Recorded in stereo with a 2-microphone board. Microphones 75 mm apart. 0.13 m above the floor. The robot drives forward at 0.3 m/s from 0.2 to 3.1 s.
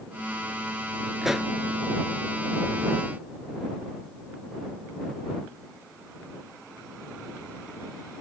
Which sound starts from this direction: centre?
A pop, at 1.2 s.